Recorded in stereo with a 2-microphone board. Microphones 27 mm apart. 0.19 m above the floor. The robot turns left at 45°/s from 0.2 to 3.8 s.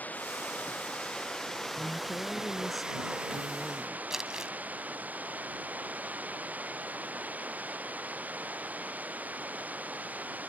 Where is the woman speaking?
45° left; by 4.0 s 45° right.